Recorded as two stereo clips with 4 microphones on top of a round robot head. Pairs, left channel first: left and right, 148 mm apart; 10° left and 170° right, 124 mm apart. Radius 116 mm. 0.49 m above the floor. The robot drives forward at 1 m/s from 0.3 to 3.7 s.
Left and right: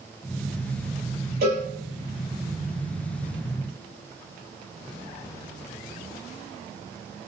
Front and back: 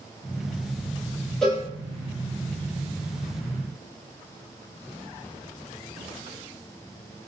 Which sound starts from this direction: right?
A cowbell, at 1.4 s.